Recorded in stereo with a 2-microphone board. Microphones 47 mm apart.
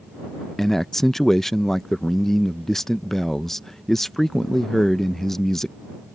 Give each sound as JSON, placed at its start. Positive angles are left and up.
{"t": 0.6, "sound": "a man speaking", "side_deg": 5}